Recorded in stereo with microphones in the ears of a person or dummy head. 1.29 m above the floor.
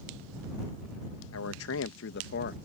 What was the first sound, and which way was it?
A man speaking, 80° left.